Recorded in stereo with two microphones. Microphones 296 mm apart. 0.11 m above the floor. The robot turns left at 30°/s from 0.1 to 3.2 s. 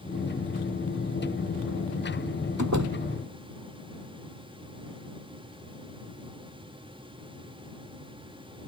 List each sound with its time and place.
2.6 s a door slam: 70° right (ahead or behind)